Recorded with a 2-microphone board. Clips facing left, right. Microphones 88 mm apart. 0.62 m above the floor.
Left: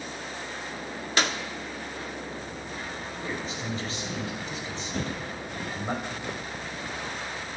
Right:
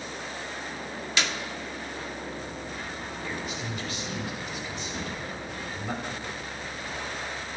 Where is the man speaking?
30° left (ahead or behind), 4 m.